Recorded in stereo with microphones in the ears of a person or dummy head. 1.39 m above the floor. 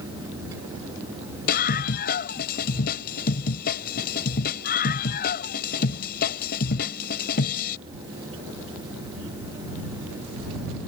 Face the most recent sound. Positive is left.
turn(degrees=45)  # may be behind; listen again after turning